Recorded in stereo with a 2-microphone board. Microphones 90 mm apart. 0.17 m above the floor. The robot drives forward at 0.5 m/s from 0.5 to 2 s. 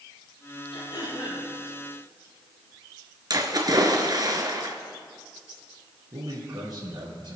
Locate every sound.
0.7 s throat clearing: 65° left (ahead or behind), 6 m; by 1.5 s 60° left (ahead or behind), 6.5 m
3.3 s a splash: 50° right (ahead or behind), 2 m
6.1 s a man speaking: 60° right (ahead or behind), 4.5 m